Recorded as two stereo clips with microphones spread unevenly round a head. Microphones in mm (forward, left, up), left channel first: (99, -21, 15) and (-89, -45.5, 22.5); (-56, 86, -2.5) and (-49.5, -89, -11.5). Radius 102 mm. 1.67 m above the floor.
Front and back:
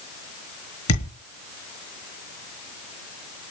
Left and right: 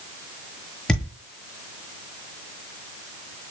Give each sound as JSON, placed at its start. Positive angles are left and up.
{"t": 0.9, "sound": "a thud", "azimuth_deg": 5, "distance_m": 7.0}